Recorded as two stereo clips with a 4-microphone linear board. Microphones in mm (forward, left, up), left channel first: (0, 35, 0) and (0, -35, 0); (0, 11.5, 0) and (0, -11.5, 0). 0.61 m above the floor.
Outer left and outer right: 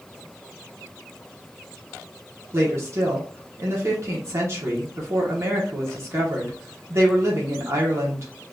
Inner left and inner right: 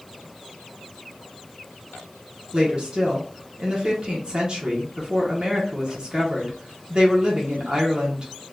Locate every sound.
2.5 s a woman speaking: 40° right (ahead or behind), 1.0 m